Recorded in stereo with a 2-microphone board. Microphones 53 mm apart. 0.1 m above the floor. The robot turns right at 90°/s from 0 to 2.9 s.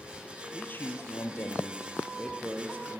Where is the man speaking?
30° left, 2.5 m; by 3.0 s 115° right, 2.5 m.